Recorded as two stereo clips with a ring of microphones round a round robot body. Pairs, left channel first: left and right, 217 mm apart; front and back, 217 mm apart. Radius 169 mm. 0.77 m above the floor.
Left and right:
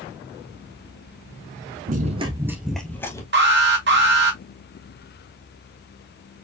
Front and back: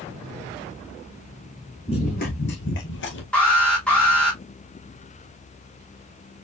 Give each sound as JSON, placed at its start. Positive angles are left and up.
{"t": 1.9, "sound": "running footsteps", "azimuth_deg": -65, "distance_m": 0.9}
{"t": 3.3, "sound": "an alarm", "azimuth_deg": -85, "distance_m": 2.0}